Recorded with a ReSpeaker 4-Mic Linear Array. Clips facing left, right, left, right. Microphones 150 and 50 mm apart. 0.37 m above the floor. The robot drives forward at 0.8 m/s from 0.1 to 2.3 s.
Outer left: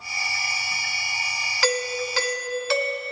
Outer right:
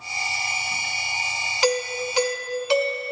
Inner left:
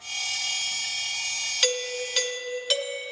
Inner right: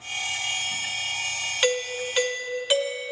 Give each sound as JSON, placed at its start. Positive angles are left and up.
{"t": 1.6, "sound": "a doorbell", "side_deg": -20, "distance_m": 1.4}